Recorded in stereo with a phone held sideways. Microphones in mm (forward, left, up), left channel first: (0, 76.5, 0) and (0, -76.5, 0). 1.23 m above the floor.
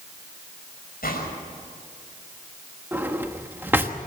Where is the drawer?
15° right (ahead or behind), 1.2 m.